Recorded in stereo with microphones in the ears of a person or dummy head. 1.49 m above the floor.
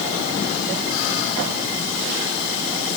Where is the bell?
I don't hear a bell.